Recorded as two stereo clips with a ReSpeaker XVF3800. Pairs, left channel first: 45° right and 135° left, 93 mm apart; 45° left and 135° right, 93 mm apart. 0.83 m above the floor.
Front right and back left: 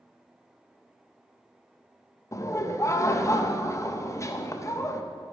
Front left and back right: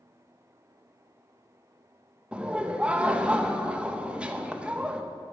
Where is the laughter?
65° right, 0.6 m.